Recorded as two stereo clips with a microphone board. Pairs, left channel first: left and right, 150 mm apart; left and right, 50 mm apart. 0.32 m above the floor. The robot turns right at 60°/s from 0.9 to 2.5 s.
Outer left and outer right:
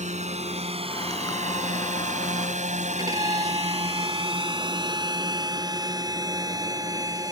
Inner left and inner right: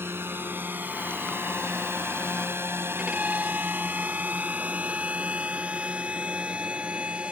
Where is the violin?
25° right (ahead or behind).